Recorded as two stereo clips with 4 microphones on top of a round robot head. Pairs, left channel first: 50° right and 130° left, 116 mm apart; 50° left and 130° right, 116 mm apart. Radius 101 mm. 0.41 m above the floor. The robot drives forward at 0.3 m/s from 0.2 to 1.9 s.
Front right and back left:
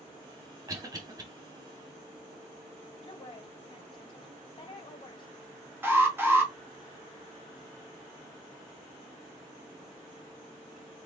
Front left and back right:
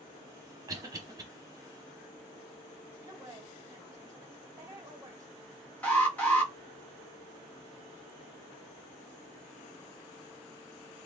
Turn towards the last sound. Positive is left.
turn(degrees=100)